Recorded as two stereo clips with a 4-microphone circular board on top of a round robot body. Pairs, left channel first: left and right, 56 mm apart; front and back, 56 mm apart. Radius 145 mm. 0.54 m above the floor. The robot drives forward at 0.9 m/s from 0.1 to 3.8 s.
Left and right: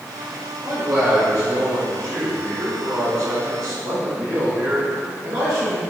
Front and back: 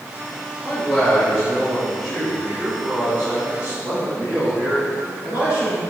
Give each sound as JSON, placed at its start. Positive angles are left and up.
{"t": 0.6, "sound": "a man speaking", "azimuth_deg": -70, "distance_m": 3.0}